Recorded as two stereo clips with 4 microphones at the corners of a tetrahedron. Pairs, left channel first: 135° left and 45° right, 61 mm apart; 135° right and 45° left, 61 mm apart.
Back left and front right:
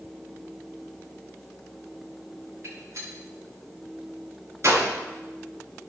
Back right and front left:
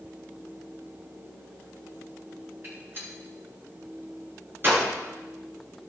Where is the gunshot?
5° right, 9.5 m.